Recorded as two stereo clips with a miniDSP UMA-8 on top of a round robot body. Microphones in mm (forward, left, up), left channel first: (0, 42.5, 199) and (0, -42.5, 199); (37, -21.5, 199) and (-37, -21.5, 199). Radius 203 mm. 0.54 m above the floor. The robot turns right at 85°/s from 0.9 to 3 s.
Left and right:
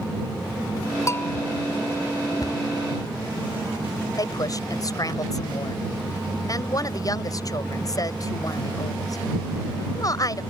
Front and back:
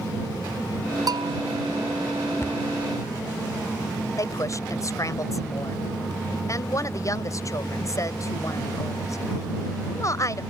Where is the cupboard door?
50° left; by 2.6 s 65° left.